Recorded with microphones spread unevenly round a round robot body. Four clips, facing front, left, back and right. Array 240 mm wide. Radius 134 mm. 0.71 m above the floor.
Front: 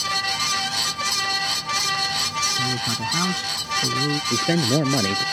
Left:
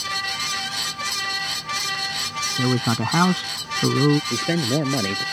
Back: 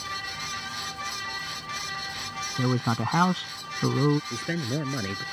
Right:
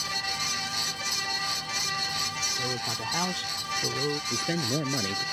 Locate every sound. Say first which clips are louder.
2.6 s a man speaking: left 14 dB, back 1 dB; 105° left
4.3 s a man speaking: left 7 dB, front 10 dB; 35° left